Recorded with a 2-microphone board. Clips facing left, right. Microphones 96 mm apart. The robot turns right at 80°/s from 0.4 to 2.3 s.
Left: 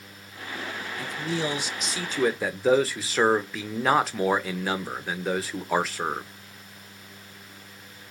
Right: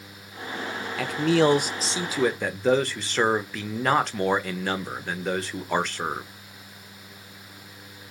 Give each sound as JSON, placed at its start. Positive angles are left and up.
{"t": 1.0, "sound": "a man speaking", "azimuth_deg": -105, "distance_m": 0.5}